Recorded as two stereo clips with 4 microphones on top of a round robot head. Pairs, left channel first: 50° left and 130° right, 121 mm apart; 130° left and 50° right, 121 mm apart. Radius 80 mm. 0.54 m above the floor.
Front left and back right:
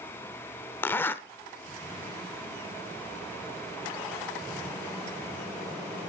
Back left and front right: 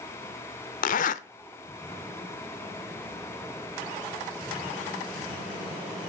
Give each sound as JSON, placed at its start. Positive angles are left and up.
{"t": 0.8, "sound": "a zipper", "azimuth_deg": 120, "distance_m": 0.6}